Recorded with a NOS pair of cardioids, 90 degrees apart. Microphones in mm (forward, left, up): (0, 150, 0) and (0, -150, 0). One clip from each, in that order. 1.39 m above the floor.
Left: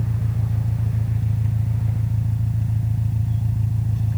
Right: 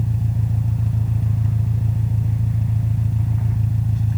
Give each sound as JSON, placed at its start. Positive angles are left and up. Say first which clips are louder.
{"t": 0.0, "sound": "an engine running", "louder": "right 2 dB", "azimuth_deg": -15}